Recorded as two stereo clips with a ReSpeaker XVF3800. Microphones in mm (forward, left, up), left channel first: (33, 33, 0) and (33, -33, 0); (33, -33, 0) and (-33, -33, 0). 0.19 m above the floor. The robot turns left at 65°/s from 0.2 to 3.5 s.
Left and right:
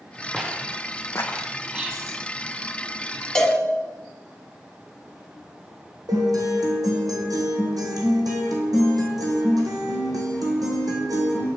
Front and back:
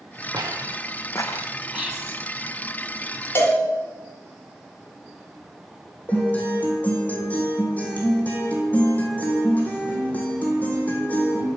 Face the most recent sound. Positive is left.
turn(degrees=-70)